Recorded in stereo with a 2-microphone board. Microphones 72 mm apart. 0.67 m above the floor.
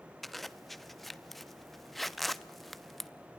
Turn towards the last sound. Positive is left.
turn(degrees=0)  # may be behind; listen again after turning